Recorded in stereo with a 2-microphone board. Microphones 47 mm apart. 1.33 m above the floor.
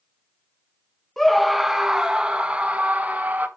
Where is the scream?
5° left (ahead or behind), 1.2 m; by 3.5 s 30° right (ahead or behind), 2.0 m.